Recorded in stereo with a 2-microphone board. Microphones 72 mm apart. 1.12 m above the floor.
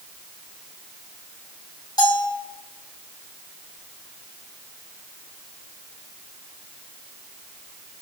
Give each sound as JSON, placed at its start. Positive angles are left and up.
{"t": 2.0, "sound": "a bell", "side_deg": 75, "distance_m": 2.5}